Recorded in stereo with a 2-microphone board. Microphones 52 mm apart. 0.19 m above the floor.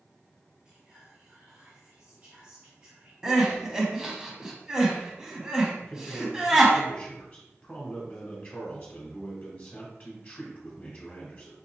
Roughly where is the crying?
Centre.